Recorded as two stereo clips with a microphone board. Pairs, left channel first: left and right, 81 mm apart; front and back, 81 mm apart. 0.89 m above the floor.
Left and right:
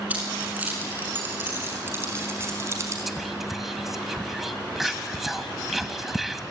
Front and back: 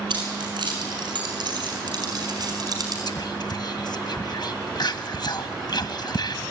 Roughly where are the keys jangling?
Behind.